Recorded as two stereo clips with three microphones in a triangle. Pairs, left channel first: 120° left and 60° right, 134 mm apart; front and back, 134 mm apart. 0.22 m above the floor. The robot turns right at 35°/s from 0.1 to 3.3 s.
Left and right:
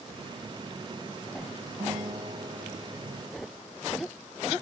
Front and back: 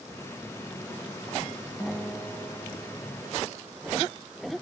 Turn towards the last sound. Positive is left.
turn(degrees=-25)